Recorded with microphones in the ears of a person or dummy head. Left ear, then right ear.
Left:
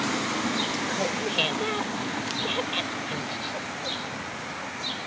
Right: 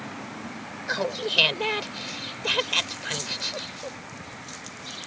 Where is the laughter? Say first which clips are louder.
Even; 70° right (ahead or behind).